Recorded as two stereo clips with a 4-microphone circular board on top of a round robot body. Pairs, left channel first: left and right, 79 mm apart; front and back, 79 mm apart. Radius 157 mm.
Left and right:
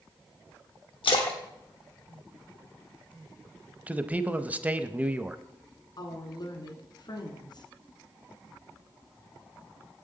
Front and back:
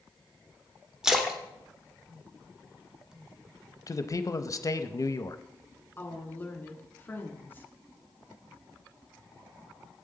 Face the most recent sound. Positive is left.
turn(degrees=65)